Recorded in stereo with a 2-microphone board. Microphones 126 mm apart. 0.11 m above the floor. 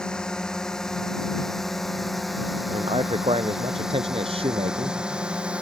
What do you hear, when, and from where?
0.0 s a drone: 5° left (ahead or behind); by 5.6 s 10° right (ahead or behind)
2.7 s a man speaking: 50° right (ahead or behind)